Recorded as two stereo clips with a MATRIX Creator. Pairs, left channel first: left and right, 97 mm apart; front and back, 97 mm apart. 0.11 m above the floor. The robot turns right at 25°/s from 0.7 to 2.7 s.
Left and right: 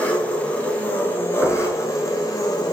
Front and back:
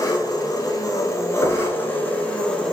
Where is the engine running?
25° left, 0.8 m; by 2.7 s 75° left, 0.8 m.